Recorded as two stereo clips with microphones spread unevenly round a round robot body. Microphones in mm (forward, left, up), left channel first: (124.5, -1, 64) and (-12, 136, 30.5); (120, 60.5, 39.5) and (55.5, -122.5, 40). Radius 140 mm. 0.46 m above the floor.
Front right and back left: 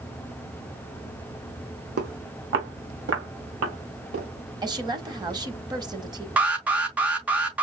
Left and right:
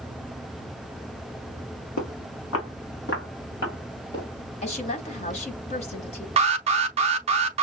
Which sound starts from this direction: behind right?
An alarm, at 6.4 s.